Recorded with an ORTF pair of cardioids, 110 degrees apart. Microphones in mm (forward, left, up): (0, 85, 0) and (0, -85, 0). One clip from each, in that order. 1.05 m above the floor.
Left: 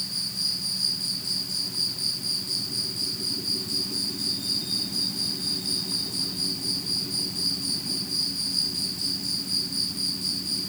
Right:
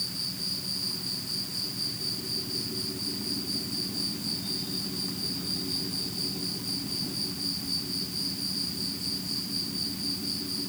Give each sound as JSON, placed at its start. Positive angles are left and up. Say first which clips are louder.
{"t": 0.0, "sound": "an insect", "louder": "left 4 dB", "azimuth_deg": 70, "distance_m": 4.0}